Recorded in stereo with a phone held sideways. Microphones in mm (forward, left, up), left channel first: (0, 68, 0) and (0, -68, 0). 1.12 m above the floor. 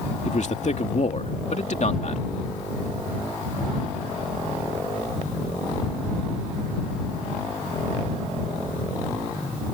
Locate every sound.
0.2 s a man speaking: 60° left (ahead or behind)